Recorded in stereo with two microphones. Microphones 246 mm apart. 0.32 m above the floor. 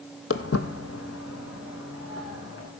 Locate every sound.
0.3 s footsteps: 65° left (ahead or behind), 0.8 m; by 2.7 s 75° left (ahead or behind), 3.5 m